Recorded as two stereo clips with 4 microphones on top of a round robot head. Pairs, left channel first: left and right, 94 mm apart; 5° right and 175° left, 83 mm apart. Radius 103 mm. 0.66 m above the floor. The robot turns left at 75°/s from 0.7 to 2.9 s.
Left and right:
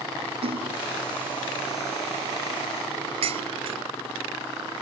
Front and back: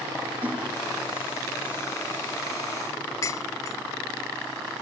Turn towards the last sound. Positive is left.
turn(degrees=-65)